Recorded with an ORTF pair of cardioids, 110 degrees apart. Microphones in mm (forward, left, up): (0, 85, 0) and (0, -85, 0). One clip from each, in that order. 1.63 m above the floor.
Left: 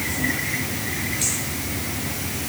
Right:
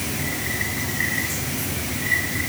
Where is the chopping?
I don't hear chopping.